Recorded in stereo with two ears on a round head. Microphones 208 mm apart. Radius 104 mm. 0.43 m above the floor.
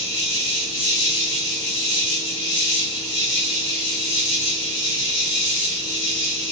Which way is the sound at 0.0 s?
50° left (ahead or behind).